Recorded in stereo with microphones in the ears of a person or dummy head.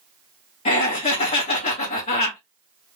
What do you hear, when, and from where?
0.7 s laughter: 25° left (ahead or behind), 0.7 m